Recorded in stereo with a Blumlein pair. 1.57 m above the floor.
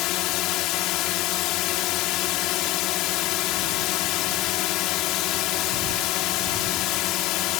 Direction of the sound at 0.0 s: 40° left.